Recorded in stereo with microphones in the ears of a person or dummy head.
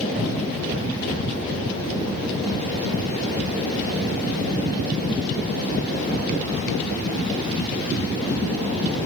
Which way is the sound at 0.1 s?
40° right (ahead or behind).